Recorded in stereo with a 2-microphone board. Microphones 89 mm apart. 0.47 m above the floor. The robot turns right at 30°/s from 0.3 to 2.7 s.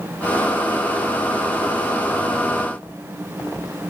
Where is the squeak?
I don't hear a squeak.